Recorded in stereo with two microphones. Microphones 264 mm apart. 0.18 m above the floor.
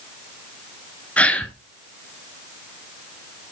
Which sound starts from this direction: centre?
A gasp, at 1.2 s.